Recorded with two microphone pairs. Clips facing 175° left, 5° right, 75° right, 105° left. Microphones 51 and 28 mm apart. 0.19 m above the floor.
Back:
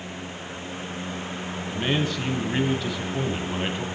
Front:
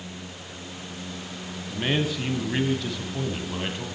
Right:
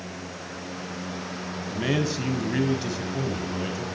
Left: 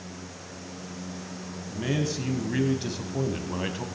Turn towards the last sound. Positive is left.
turn(degrees=115)